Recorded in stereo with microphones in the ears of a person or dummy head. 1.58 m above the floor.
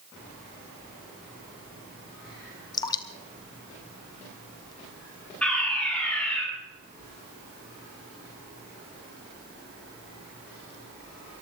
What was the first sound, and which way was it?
Dripping, 25° left (ahead or behind).